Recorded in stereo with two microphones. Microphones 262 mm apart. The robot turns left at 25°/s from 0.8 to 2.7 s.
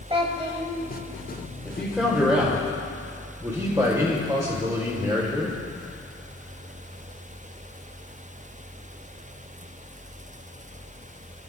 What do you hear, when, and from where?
0.1 s a child speaking: 20° right (ahead or behind), 1.2 m
1.6 s a man speaking: 5° left (ahead or behind), 2.0 m; by 5.6 s 15° right (ahead or behind), 2.0 m